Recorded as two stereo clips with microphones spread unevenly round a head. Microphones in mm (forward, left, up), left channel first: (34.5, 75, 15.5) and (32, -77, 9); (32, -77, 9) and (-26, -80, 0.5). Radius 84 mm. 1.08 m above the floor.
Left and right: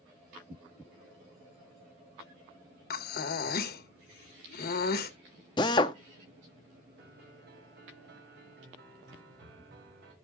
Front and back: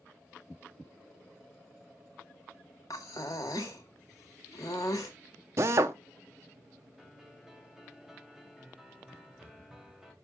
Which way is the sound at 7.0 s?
95° right.